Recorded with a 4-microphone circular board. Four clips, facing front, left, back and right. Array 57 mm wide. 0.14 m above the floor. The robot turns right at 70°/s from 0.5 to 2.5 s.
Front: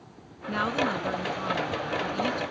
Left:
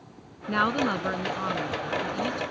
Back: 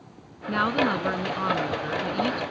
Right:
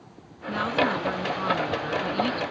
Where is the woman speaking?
115° left; by 2.4 s 110° right.